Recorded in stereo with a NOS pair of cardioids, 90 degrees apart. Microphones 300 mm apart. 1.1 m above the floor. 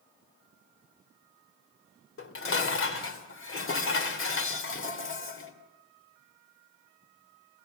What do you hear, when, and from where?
2.2 s dishes clattering: 45° left, 2.5 m